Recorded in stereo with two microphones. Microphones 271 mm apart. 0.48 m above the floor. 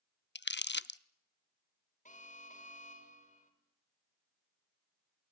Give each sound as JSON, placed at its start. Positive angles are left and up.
{"t": 0.3, "sound": "crumpling", "side_deg": 40, "distance_m": 0.5}
{"t": 2.0, "sound": "an alarm", "side_deg": 30, "distance_m": 3.0}